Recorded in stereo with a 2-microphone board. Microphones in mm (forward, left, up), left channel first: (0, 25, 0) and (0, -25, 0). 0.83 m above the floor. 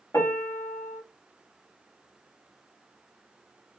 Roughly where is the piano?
Left.